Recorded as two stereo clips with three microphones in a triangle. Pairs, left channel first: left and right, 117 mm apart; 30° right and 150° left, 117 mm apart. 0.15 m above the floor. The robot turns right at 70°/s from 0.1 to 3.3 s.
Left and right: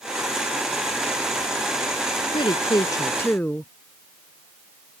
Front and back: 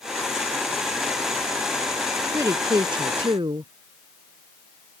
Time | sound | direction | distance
2.3 | a woman speaking | 90° left | ?